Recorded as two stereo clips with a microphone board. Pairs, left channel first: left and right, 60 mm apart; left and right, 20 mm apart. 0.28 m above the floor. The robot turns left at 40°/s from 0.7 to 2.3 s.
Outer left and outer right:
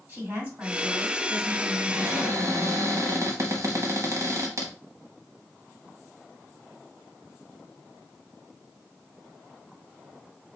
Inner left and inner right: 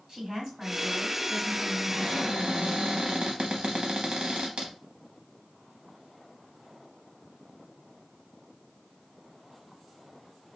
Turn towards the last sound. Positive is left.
turn(degrees=-55)  # may be behind; listen again after turning